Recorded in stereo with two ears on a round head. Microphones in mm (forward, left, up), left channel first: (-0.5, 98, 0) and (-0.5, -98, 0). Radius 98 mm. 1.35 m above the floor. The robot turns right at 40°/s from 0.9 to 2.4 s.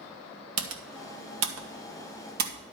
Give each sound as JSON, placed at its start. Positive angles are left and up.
{"t": 0.6, "sound": "typing on a keyboard", "side_deg": -70, "distance_m": 1.3}